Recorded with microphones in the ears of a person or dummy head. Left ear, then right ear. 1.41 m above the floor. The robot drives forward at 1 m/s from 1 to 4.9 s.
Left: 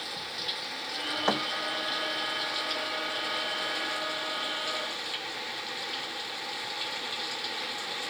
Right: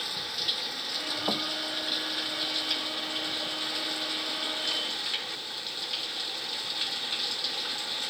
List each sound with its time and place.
0.0 s running water: 10° right (ahead or behind); by 8.1 s 15° right (ahead or behind)
1.3 s a thud: 55° left (ahead or behind)